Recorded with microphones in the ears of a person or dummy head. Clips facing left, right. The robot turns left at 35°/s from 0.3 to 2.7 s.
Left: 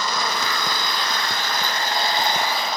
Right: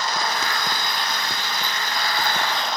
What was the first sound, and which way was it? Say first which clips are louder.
An engine running: even; 85° left.